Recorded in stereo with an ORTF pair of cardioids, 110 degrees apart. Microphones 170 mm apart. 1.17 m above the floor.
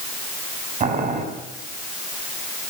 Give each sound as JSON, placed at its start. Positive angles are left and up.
{"t": 0.8, "sound": "boiling", "azimuth_deg": -45, "distance_m": 6.5}